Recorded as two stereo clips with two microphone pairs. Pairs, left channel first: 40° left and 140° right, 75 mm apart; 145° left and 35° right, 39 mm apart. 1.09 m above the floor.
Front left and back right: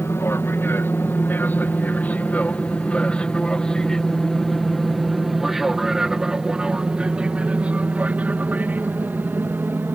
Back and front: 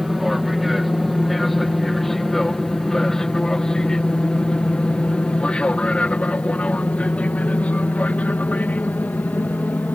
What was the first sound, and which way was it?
An aircraft, 50° left.